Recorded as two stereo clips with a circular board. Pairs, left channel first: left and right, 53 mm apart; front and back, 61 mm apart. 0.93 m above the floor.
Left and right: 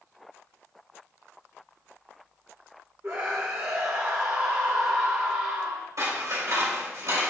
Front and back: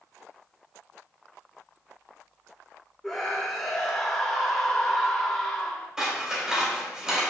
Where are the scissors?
100° right, 4 m.